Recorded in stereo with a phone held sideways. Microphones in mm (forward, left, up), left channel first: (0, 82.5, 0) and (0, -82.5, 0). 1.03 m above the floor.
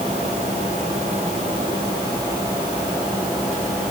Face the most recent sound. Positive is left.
No sound to turn to.